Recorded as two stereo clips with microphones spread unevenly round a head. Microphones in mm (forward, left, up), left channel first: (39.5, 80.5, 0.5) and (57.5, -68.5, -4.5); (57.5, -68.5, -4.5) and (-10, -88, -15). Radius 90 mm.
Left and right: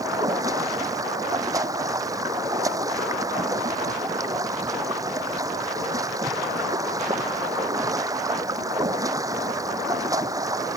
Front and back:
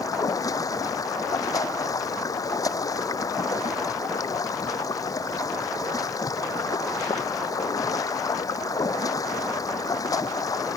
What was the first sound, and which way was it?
Running water, 15° right.